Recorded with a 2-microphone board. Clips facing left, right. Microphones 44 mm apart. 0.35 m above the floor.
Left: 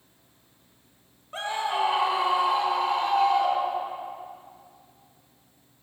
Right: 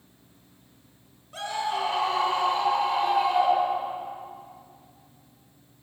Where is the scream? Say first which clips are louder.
Left 1 dB; 30° left (ahead or behind), 1.6 m; by 4.0 s 20° right (ahead or behind), 1.7 m.